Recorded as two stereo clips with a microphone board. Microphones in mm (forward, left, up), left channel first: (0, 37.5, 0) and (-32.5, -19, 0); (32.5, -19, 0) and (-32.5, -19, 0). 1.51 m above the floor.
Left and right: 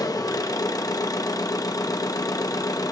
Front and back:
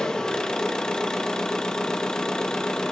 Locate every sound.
0.0 s an engine running: 80° left, 0.7 m